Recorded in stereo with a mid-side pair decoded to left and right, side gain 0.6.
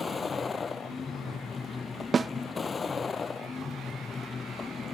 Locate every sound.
0.0 s a vehicle: 25° left
2.1 s a snare drum: 30° right